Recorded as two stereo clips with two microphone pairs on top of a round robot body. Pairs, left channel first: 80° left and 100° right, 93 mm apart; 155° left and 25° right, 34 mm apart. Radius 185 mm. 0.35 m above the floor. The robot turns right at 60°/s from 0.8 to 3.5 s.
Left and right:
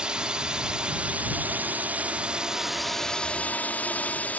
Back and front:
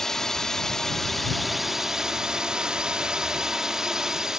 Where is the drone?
150° right; by 4.4 s 15° left.